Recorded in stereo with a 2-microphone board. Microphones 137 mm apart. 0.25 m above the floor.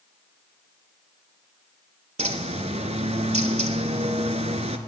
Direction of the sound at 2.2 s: 55° right (ahead or behind).